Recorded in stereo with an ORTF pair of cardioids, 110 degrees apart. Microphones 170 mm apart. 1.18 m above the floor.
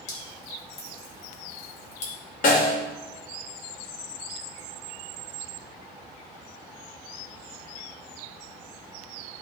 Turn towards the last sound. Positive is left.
turn(degrees=55)